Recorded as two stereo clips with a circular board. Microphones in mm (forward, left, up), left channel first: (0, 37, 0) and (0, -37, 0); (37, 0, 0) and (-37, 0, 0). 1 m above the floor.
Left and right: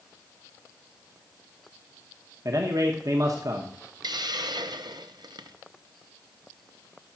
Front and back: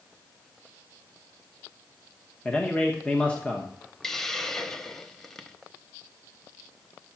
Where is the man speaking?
70° right, 1.1 m.